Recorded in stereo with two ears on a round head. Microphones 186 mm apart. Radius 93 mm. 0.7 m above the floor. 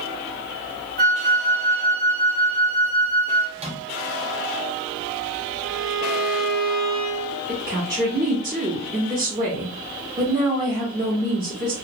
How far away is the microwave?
About 0.7 m.